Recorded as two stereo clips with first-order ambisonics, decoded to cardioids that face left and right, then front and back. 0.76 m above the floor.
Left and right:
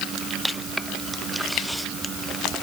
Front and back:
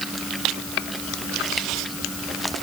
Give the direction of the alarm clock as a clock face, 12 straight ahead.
No alarm clock in this recording.